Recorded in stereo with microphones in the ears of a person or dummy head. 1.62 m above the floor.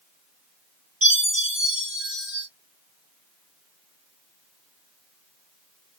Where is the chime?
10° right (ahead or behind), 1.4 m.